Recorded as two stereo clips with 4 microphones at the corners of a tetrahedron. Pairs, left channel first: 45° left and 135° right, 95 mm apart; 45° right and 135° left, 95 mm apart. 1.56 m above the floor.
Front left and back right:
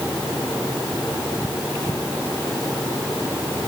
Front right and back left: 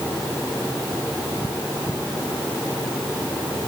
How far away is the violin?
No violin in this recording.